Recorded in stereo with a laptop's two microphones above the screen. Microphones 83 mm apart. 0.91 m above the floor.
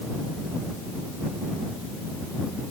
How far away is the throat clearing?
I don't hear throat clearing.